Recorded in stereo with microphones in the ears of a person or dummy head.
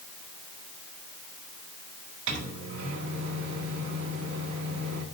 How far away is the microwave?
About 1.5 m.